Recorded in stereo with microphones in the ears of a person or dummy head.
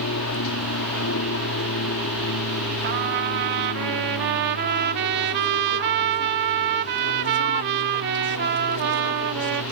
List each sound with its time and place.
0.0 s an aircraft: 65° left (ahead or behind); by 9.7 s 70° left (ahead or behind)
2.8 s a trumpet: 55° right (ahead or behind)